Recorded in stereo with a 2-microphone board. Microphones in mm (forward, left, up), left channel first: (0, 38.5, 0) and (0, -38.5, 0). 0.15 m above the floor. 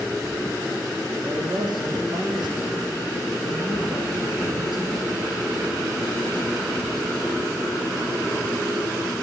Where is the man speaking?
70° right (ahead or behind), 6.5 m.